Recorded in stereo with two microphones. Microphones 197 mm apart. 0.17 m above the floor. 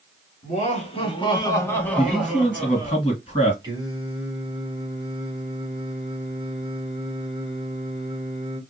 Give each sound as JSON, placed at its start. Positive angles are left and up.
{"t": 0.4, "sound": "laughter", "side_deg": 40, "distance_m": 1.5}
{"t": 2.0, "sound": "a man speaking", "side_deg": 30, "distance_m": 2.0}
{"t": 3.6, "sound": "singing", "side_deg": -20, "distance_m": 1.3}